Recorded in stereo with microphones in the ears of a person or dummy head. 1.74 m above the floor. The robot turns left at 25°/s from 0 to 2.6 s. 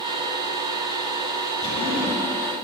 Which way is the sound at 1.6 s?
30° left (ahead or behind).